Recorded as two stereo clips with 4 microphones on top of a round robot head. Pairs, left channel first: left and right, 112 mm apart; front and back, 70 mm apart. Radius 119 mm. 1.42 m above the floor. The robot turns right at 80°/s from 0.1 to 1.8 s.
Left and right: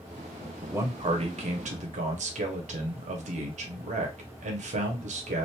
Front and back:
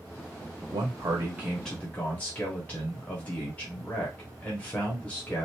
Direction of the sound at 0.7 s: 160° right.